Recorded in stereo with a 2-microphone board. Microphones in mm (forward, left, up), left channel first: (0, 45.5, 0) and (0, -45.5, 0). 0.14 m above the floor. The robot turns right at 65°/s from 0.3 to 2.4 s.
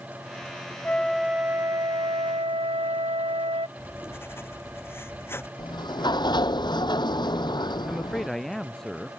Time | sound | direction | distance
0.8 | a flute | 160° left | ?
3.8 | writing | 25° left (ahead or behind) | ?
5.6 | a sliding door | 55° left (ahead or behind) | ?
7.8 | a man speaking | 5° left (ahead or behind) | ?